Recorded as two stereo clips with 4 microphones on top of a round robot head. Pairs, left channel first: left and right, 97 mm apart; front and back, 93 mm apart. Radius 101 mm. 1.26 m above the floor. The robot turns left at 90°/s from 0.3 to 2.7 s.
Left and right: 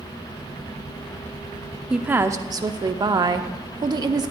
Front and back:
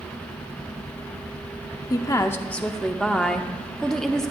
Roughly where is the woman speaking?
Ahead.